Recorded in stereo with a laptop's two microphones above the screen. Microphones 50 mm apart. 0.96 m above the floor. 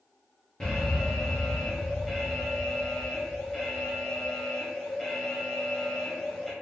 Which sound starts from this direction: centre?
An alarm, at 0.6 s.